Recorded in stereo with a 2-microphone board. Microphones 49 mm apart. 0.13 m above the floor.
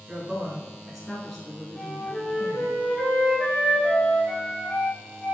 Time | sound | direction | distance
0.1 | a woman speaking | 20° right (ahead or behind) | 1.3 m
1.8 | a flute | 25° left (ahead or behind) | 1.5 m